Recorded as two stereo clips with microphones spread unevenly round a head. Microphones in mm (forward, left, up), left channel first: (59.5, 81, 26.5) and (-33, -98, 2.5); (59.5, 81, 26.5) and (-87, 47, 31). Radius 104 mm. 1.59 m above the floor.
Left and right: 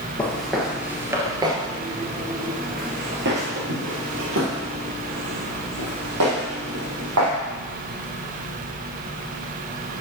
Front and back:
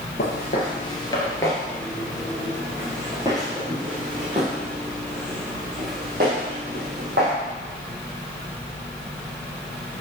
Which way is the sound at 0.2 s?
10° right.